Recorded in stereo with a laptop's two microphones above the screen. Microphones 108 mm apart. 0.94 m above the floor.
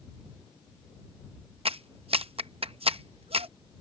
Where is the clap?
65° right (ahead or behind).